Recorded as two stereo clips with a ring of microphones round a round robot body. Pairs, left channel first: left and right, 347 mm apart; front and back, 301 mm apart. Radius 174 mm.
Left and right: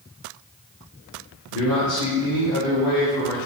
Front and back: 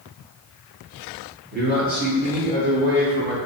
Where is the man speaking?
120° left, 1.7 m; by 3.4 s 125° left, 3 m.